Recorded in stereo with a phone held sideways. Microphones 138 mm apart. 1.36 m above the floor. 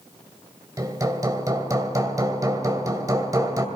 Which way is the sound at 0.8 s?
25° right (ahead or behind).